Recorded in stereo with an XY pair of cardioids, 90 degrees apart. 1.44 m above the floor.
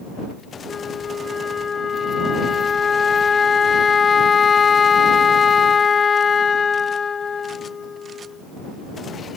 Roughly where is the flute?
Ahead left.